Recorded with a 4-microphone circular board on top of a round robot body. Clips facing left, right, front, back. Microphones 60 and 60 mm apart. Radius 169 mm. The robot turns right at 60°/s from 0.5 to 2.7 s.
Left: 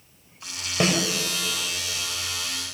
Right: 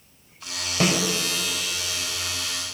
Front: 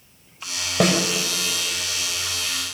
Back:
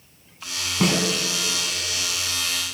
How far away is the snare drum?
About 3 m.